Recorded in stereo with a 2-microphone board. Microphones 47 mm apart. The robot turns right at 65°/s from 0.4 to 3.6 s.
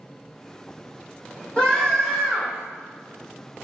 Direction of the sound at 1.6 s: 25° left (ahead or behind).